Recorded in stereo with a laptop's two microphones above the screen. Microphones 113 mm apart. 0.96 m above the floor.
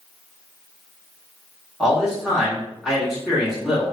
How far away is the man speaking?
About 0.8 m.